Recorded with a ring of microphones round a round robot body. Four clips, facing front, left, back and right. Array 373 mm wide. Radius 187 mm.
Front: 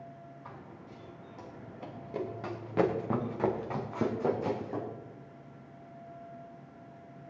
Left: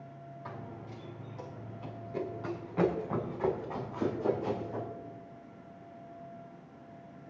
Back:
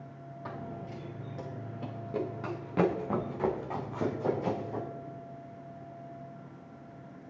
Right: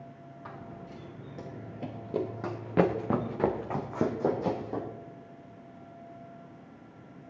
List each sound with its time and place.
0.5 s running footsteps: 165° right, 2.5 m; by 4.9 s 70° right, 5 m